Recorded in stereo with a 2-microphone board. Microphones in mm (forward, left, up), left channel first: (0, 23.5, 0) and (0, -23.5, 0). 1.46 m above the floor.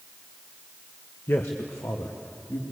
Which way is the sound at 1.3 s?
55° left (ahead or behind).